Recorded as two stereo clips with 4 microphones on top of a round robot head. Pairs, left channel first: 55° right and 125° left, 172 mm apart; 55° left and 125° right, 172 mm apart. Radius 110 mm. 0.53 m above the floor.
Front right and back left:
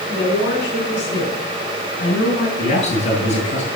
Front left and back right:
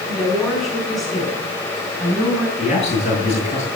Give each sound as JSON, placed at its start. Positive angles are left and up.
{"t": 0.1, "sound": "a woman speaking", "azimuth_deg": -15, "distance_m": 6.0}
{"t": 2.6, "sound": "a man speaking", "azimuth_deg": 0, "distance_m": 9.0}